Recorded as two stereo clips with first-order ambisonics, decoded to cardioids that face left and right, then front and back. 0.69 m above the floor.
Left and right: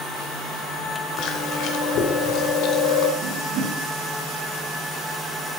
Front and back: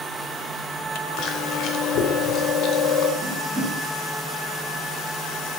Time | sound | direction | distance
1.2 | chewing | 50° left | 0.9 m
3.2 | a whoosh | 100° right | 2 m